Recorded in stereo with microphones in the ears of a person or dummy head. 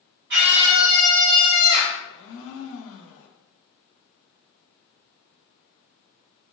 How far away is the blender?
About 0.9 m.